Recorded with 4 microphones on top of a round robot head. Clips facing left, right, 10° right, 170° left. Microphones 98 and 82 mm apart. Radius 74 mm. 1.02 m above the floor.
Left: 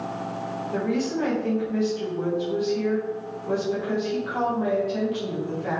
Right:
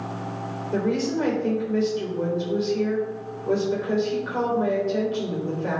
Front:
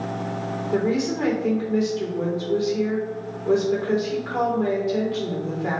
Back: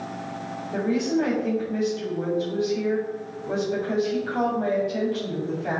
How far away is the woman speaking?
About 3.5 m.